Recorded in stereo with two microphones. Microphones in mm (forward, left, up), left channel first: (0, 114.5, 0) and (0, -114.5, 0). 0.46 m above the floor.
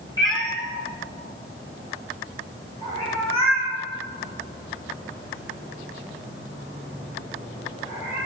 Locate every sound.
0.2 s a cat meowing: 20° left (ahead or behind), 2.5 m; by 8.2 s 25° left (ahead or behind), 9.5 m